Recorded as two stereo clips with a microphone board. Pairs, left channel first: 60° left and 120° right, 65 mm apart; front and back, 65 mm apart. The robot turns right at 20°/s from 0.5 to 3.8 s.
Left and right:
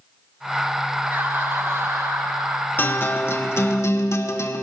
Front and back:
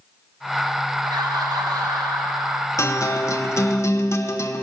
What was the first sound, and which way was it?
Laughter, 175° left.